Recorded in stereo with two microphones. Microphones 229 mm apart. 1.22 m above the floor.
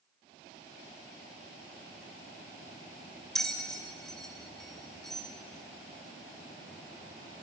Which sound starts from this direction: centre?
A bell, at 3.4 s.